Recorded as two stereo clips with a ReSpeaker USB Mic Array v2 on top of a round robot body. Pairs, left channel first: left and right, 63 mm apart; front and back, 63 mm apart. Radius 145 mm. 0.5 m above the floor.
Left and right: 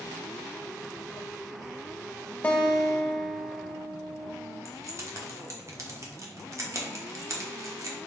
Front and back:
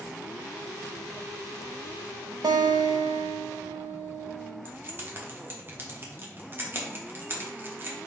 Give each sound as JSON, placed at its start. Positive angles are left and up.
{"t": 2.4, "sound": "a guitar", "azimuth_deg": 160, "distance_m": 0.6}
{"t": 4.7, "sound": "keys jangling", "azimuth_deg": -125, "distance_m": 1.2}